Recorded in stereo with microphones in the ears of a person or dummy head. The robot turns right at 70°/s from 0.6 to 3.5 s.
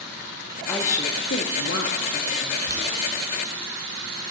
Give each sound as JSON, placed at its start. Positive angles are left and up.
{"t": 0.7, "sound": "a woman speaking", "azimuth_deg": 5, "distance_m": 0.8}
{"t": 2.7, "sound": "boiling", "side_deg": -60, "distance_m": 3.0}